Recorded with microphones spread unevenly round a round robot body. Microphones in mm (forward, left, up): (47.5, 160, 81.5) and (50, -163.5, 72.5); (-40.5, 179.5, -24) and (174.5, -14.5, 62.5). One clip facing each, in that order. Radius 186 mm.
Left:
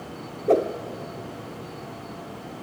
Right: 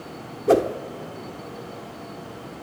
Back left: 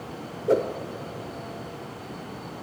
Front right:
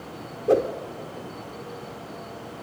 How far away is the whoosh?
About 0.5 m.